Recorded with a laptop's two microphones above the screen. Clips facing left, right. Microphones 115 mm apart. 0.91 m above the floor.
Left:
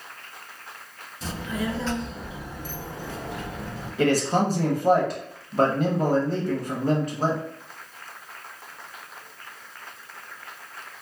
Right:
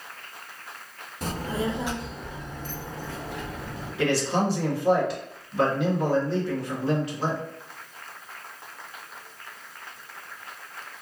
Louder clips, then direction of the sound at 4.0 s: Left 3 dB; 45° left (ahead or behind).